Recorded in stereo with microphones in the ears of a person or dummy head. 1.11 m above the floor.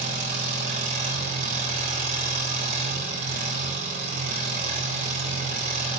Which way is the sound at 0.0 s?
45° right (ahead or behind).